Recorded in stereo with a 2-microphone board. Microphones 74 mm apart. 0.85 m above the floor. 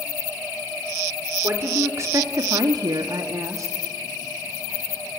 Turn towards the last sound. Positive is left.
turn(degrees=-40)  # may be behind; listen again after turning